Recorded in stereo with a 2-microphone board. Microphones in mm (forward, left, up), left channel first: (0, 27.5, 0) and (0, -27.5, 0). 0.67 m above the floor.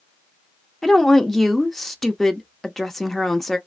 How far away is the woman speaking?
About 0.6 m.